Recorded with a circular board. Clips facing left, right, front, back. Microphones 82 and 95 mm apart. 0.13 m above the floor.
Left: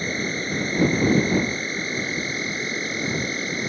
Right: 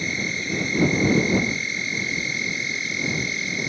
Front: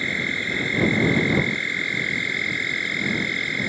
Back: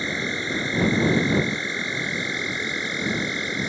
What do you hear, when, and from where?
0.0 s an insect: 120° left